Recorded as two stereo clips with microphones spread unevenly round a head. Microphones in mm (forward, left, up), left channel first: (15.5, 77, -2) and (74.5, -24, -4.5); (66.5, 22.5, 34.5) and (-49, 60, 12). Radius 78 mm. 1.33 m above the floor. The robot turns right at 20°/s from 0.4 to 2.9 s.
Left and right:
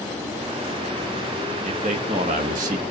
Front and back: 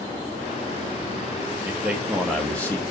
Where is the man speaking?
115° right, 0.8 m; by 2.8 s 95° right, 0.8 m.